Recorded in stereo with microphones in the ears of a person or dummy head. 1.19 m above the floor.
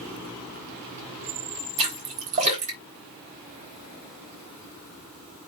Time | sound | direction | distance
1.8 | a splash | 35° right (ahead or behind) | 4 m